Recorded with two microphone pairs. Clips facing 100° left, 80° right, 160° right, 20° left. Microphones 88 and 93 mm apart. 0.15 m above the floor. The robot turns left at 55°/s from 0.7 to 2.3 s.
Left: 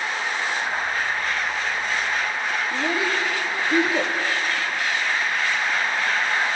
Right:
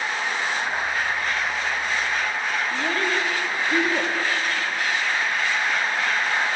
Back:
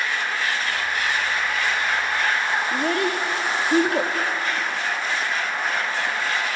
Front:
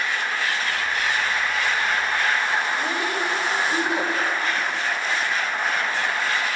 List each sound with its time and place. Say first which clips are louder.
2.7 s a child speaking: left 1 dB, back 3 dB; 175° left, 3 m